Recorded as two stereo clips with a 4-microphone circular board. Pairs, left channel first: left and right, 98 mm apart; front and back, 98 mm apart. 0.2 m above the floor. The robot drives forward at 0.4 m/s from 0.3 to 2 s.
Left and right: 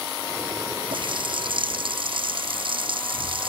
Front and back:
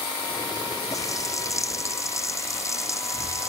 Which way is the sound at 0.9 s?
55° right.